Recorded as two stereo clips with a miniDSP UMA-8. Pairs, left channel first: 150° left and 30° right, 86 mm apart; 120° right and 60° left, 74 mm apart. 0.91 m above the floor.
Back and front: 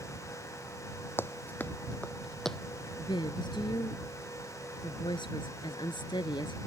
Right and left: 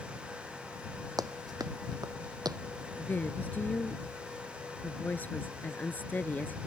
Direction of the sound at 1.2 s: 85° left.